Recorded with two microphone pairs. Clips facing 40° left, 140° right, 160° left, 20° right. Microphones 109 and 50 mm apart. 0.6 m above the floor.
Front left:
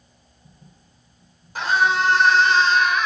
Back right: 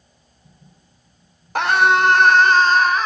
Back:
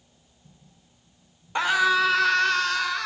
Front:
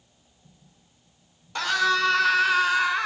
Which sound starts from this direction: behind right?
A scream, at 1.6 s.